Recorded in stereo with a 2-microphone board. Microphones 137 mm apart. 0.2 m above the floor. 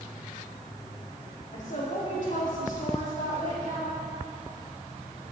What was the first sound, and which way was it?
A woman speaking, 60° left (ahead or behind).